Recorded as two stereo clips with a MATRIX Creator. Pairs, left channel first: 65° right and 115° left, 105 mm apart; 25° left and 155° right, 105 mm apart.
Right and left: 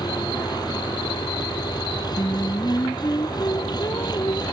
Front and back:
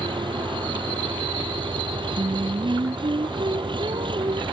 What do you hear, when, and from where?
0.0 s an engine running: 120° right
2.2 s singing: 125° right